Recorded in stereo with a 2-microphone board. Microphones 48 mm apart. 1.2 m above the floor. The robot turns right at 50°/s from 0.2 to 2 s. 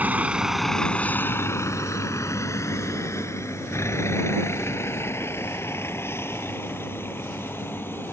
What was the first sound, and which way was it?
A vehicle, 35° right (ahead or behind).